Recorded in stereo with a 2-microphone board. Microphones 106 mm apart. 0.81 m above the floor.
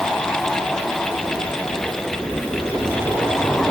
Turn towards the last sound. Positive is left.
No sound to turn to.